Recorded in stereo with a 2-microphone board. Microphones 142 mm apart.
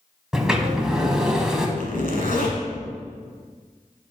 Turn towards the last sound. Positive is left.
turn(degrees=85)